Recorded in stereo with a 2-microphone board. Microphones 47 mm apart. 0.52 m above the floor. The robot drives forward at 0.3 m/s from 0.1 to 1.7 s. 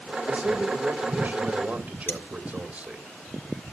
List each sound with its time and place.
0.3 s a man speaking: 30° right (ahead or behind), 1.5 m
2.1 s cutlery clinking: 60° left (ahead or behind), 7 m